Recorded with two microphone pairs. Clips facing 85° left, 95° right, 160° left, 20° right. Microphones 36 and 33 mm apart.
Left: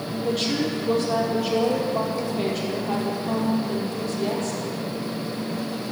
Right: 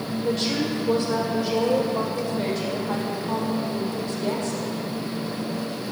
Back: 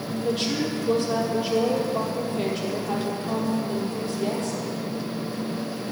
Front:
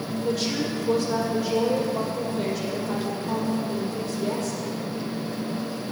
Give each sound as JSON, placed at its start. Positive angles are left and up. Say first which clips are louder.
{"t": 0.2, "sound": "a woman speaking", "louder": "left 1 dB, back 1 dB", "azimuth_deg": 110, "distance_m": 4.0}